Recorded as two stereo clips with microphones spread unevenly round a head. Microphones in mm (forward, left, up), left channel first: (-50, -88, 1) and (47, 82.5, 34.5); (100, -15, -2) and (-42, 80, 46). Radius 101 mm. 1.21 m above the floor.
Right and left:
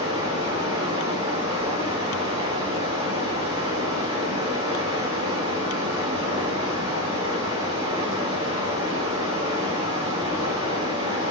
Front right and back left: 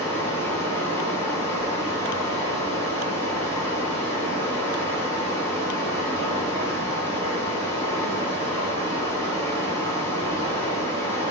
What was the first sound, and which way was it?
Running water, 60° left.